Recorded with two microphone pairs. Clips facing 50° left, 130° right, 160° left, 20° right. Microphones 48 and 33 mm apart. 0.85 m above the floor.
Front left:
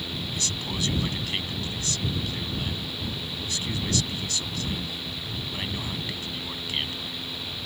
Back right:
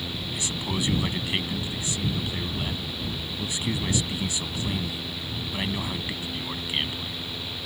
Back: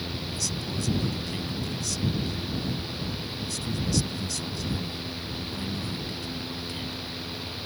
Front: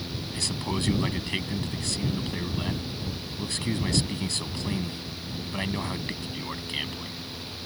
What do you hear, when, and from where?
0.3 s a man speaking: 55° right